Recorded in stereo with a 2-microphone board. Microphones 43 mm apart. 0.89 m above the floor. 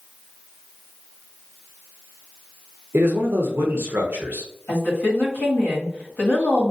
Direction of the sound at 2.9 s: 55° right (ahead or behind).